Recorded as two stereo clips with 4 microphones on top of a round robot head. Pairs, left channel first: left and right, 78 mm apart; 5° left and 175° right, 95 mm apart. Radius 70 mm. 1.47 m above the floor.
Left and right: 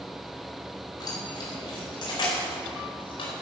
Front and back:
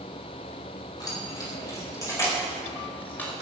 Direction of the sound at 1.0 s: 55° left.